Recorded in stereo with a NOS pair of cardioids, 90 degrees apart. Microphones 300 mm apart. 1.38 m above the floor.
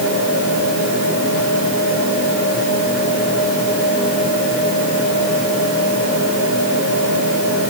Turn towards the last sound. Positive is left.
No sound to turn to.